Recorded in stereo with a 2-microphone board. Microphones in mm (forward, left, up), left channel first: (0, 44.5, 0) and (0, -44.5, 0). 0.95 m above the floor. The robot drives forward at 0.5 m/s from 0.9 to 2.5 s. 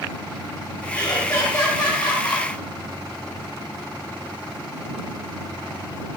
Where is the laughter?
40° left (ahead or behind), 3.5 m; by 2.5 s 50° left (ahead or behind), 3 m.